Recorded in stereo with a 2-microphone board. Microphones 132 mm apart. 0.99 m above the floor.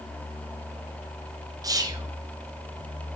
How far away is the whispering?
About 1.0 m.